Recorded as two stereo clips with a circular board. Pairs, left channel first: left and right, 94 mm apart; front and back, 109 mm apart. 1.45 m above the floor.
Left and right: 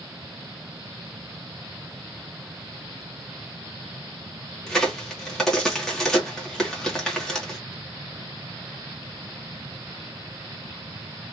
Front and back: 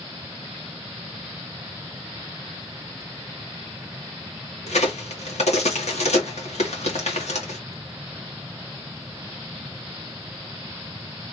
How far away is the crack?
About 1.8 m.